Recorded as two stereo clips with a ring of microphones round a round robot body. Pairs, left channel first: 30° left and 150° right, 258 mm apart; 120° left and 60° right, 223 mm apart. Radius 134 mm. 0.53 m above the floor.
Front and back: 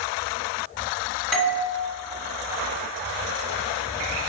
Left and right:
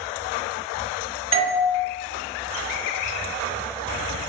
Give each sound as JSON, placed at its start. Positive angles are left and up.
{"t": 1.3, "sound": "a doorbell", "azimuth_deg": -60, "distance_m": 1.4}